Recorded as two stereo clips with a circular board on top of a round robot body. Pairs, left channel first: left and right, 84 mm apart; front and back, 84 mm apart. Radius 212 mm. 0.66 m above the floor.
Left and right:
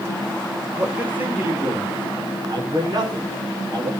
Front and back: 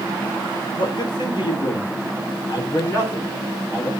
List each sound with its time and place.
0.8 s a man speaking: 20° right, 3.5 m; by 3.9 s 65° right, 4 m